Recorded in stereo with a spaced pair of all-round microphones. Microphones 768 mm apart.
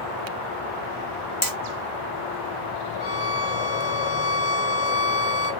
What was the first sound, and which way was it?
Hammering, 25° left (ahead or behind).